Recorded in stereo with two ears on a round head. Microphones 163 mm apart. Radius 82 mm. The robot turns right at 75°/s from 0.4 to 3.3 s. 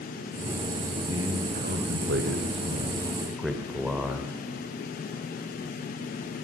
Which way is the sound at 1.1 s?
165° right.